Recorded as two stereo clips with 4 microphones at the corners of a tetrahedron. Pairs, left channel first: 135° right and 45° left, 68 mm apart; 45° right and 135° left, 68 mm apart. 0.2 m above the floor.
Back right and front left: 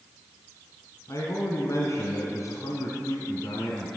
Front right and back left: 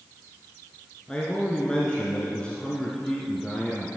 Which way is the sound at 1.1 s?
120° right.